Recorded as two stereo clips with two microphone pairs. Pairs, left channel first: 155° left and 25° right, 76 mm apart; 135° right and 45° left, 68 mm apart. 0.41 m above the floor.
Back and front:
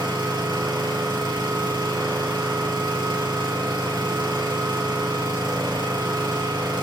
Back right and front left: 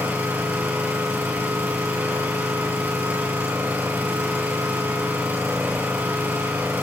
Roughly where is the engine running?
Ahead right.